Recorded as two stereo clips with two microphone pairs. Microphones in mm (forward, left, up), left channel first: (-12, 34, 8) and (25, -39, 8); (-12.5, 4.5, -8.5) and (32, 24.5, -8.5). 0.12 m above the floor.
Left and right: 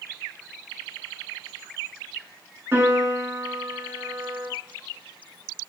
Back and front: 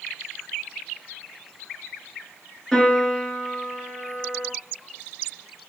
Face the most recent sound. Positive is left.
turn(degrees=-70)